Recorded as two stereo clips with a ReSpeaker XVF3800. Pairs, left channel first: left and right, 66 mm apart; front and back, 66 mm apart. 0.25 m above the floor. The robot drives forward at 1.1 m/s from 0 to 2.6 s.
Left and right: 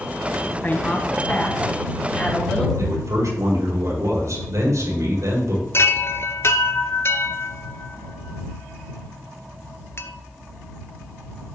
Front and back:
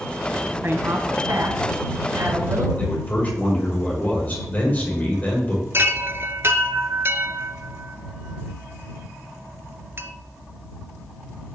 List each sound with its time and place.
0.6 s a woman speaking: 145° left, 1.5 m; by 2.7 s 170° left, 3.5 m
2.8 s a man speaking: 60° right, 6 m
5.7 s a chime: 135° left, 0.7 m